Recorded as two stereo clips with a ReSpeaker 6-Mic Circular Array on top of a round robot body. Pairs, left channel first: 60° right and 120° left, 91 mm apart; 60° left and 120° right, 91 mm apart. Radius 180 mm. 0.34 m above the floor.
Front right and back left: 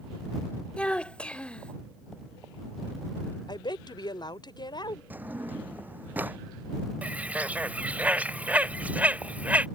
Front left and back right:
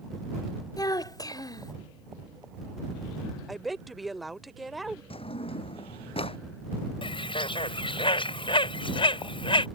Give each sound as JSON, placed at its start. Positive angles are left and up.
{"t": 0.8, "sound": "a child speaking", "azimuth_deg": 15}
{"t": 3.5, "sound": "a woman speaking", "azimuth_deg": -30}
{"t": 5.1, "sound": "a drawer", "azimuth_deg": 50}
{"t": 7.0, "sound": "a bird", "azimuth_deg": 45}